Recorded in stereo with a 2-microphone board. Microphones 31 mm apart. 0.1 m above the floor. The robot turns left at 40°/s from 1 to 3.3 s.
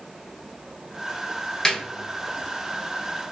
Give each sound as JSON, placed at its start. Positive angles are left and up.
{"t": 1.6, "sound": "a snare drum", "side_deg": 15, "distance_m": 0.8}